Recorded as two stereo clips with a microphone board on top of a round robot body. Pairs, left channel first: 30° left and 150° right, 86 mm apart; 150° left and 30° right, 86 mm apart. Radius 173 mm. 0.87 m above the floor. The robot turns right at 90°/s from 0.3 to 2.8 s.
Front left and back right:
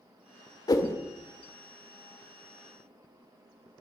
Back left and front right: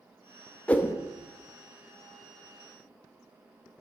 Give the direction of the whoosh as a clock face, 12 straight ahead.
10 o'clock.